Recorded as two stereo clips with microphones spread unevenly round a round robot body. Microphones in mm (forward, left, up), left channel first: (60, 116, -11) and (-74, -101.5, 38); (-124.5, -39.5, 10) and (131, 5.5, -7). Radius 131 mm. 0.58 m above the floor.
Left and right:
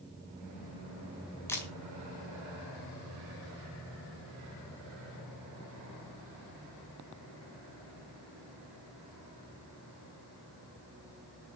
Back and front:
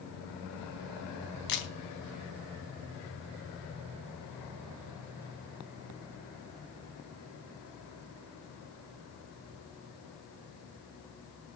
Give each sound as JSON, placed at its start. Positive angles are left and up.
{"t": 1.5, "sound": "a camera shutter", "azimuth_deg": 140, "distance_m": 3.5}